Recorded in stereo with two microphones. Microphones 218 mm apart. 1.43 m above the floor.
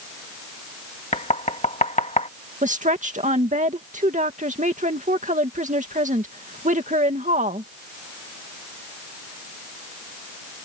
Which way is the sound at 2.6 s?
35° right (ahead or behind).